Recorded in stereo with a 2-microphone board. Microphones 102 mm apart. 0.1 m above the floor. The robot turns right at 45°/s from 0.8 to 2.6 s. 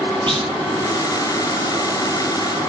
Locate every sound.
0.3 s a clunk: 50° right (ahead or behind), 8 m